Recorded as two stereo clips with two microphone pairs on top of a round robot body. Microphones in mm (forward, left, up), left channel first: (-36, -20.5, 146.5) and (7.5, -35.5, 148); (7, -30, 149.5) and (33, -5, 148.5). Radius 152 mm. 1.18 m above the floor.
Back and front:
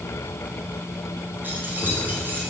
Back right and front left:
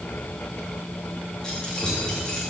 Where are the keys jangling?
70° right, 1.9 m.